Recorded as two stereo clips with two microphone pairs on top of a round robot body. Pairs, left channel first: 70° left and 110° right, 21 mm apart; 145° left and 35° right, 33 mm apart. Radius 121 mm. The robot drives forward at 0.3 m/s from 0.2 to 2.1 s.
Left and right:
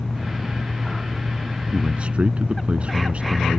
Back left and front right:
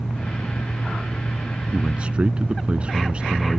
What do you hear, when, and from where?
1.7 s a man speaking: 90° right